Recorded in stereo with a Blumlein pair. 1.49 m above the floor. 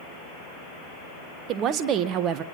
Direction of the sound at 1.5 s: 35° right.